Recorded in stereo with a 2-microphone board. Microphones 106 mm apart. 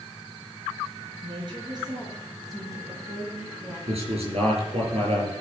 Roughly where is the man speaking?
Right.